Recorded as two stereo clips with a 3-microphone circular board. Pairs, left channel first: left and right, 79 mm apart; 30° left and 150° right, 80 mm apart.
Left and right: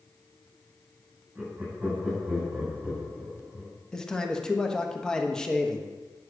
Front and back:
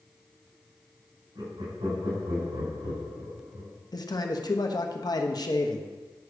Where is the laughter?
170° right, 5 m.